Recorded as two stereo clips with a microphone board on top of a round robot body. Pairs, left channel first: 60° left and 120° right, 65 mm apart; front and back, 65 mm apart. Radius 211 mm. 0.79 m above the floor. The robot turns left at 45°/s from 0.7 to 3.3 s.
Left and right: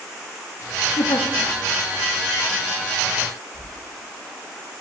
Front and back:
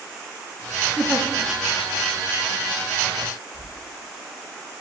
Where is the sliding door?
170° left, 5.5 m.